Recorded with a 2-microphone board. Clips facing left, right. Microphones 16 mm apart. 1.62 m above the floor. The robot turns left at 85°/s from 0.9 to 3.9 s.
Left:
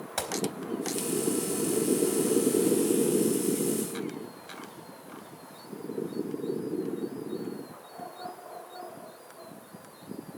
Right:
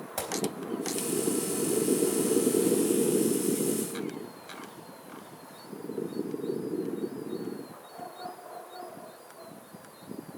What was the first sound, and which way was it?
A gunshot, 30° left (ahead or behind).